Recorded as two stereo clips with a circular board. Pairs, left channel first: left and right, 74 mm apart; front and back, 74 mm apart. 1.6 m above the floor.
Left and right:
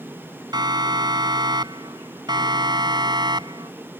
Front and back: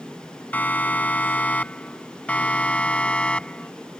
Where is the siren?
65° right; by 3.7 s 75° right.